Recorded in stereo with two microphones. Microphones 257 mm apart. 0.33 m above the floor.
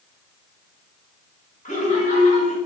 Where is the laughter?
30° left (ahead or behind), 3.5 m.